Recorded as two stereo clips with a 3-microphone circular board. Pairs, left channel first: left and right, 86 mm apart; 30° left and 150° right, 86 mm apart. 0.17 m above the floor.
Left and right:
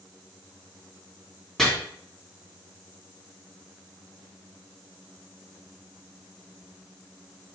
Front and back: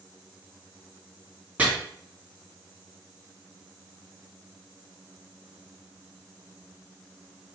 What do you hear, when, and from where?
1.6 s chopping: 170° left, 1.5 m